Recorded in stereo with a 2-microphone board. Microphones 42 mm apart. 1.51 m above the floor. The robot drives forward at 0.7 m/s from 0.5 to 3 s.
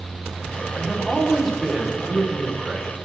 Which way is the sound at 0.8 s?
15° left (ahead or behind).